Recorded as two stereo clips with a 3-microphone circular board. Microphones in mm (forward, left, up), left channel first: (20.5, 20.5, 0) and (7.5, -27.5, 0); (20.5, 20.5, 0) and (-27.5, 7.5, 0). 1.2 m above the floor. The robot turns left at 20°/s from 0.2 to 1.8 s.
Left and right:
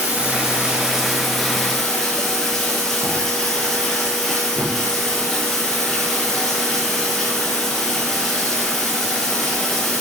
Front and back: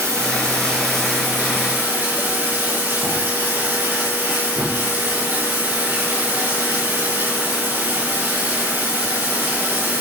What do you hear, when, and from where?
0.0 s running water: 170° right, 6.5 m; by 10.0 s 155° left, 6.5 m